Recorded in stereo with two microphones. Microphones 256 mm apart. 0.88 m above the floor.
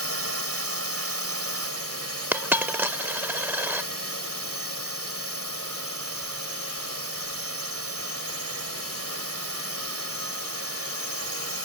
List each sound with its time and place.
0.0 s a drone: 70° right (ahead or behind)
2.3 s a dropped coin: 10° right (ahead or behind)